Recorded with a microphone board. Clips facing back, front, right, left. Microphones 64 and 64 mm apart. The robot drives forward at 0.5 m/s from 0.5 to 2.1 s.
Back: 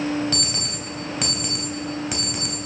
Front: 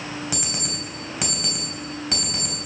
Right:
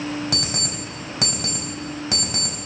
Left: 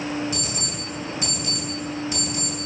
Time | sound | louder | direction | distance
0.3 | an alarm clock | back 2 dB, right 1 dB | 80° right | 2.5 m